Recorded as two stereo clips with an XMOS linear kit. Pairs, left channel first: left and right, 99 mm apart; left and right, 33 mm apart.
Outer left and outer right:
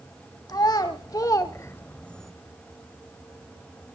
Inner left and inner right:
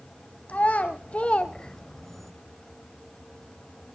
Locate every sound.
0.5 s a child speaking: 45° left (ahead or behind), 1.2 m; by 2.3 s centre (ahead or behind), 0.7 m